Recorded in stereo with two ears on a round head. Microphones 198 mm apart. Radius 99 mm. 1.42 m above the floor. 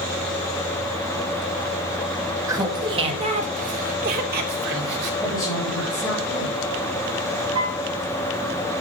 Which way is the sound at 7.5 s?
25° right (ahead or behind).